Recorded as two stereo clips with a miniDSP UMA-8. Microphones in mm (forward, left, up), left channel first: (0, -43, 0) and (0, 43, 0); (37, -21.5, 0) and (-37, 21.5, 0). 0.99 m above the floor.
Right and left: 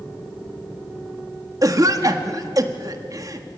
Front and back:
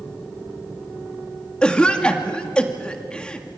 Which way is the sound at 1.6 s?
45° left.